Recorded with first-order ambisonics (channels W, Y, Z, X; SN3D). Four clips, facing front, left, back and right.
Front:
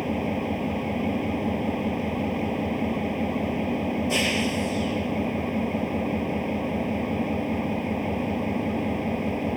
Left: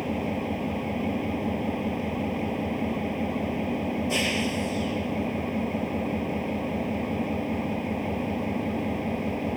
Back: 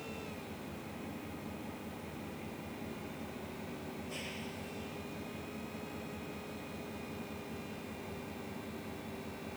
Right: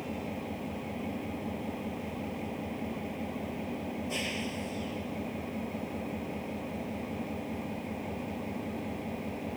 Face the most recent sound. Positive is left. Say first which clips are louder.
# left 8 dB, front 18 dB
turn(degrees=30)